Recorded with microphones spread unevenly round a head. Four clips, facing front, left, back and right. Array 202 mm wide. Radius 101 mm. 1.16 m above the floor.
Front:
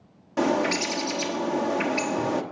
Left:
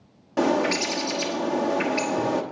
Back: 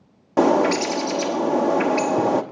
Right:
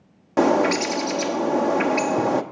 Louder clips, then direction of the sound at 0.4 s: Right 4 dB, back 7 dB; 155° right.